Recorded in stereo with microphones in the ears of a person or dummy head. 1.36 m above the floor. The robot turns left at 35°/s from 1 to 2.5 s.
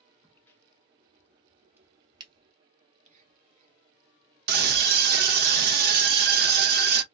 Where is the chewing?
No chewing in this recording.